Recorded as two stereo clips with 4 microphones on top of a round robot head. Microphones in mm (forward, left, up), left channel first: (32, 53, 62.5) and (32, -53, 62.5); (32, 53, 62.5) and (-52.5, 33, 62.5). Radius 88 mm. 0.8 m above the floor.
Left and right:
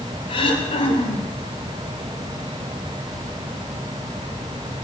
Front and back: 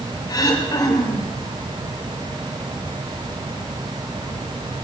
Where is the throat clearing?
55° left, 3 m.